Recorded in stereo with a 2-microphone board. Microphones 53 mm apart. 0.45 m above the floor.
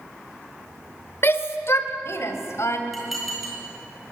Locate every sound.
1.2 s a shout: 50° left (ahead or behind), 1.9 m; by 2.8 s 60° left (ahead or behind), 3 m
2.9 s dishes clattering: centre (ahead or behind), 8.5 m